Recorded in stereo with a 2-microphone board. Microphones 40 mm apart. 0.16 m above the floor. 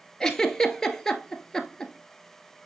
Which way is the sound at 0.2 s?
10° left (ahead or behind).